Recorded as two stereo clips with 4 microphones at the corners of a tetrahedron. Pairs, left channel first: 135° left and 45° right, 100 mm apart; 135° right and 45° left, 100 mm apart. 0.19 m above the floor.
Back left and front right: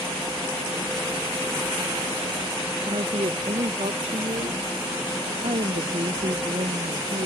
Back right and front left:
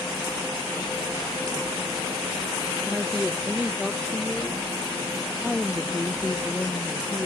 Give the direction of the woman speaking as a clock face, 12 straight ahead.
2 o'clock.